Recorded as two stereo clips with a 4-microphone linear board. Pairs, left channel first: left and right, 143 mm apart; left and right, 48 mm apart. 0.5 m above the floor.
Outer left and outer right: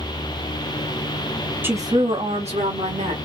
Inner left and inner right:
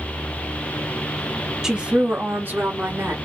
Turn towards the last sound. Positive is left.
turn(degrees=-60)  # may be behind; listen again after turning